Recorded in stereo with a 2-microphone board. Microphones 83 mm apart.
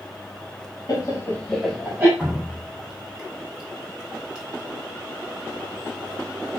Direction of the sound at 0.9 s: 45° left (ahead or behind).